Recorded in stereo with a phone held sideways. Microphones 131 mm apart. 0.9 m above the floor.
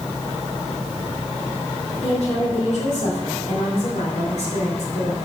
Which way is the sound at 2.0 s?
65° left (ahead or behind).